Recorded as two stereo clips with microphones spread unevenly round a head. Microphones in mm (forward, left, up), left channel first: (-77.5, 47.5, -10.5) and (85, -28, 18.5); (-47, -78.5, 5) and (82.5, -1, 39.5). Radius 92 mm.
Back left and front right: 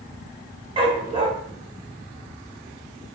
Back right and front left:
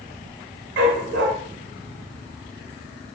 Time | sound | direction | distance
0.8 | a dog barking | 35° left | 3 m